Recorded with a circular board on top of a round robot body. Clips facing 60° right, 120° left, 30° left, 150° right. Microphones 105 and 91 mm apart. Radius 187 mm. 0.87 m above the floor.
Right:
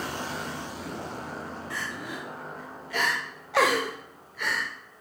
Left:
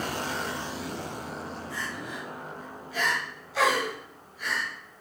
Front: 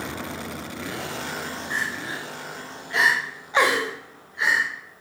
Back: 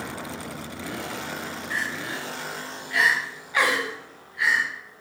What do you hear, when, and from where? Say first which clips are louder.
1.7 s crying: even, even; 35° right, 0.8 m